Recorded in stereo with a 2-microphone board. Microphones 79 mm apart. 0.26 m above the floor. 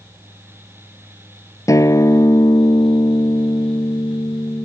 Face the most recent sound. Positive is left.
turn(degrees=40)  # may be behind; listen again after turning